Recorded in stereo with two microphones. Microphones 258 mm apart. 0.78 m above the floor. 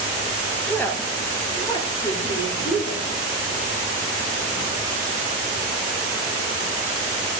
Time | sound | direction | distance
0.7 | a woman speaking | 5° left (ahead or behind) | 0.8 m